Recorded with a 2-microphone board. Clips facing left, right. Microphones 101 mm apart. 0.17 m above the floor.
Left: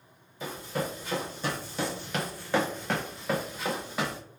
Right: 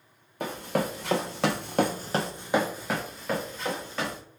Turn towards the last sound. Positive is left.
turn(degrees=10)  # may be behind; listen again after turning